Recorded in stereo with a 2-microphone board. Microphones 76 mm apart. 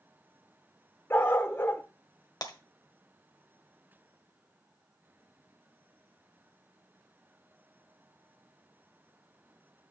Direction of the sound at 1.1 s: 30° left (ahead or behind).